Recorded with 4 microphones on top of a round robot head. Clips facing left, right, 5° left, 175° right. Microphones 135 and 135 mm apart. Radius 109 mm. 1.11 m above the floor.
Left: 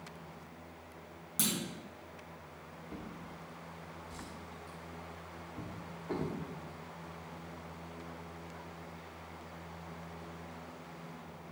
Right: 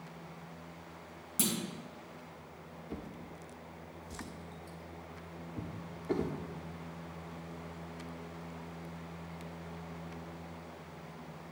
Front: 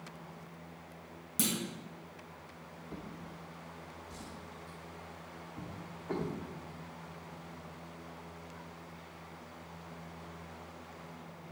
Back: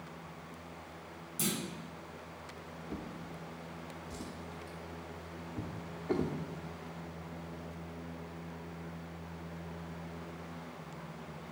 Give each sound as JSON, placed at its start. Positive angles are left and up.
{"t": 1.4, "sound": "a clunk", "azimuth_deg": -10, "distance_m": 2.0}
{"t": 2.9, "sound": "a drawer", "azimuth_deg": -125, "distance_m": 0.7}